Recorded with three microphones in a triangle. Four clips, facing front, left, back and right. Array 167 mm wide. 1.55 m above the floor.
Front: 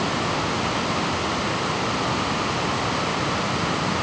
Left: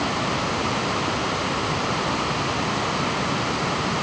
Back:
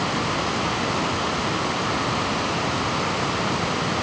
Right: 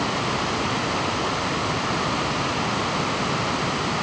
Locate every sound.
Only background noise.